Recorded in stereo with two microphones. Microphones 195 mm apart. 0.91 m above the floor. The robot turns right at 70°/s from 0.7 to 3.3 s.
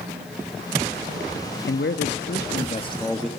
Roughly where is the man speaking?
Left.